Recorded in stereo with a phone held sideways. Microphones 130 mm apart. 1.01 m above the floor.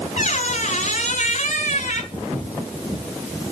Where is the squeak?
70° left (ahead or behind), 1.5 m.